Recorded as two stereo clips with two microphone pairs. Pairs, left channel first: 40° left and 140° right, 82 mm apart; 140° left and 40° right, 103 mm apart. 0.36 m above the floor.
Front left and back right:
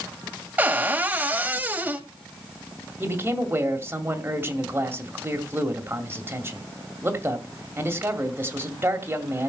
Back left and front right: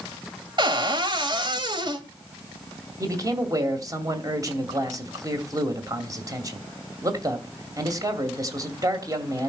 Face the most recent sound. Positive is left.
turn(degrees=-85)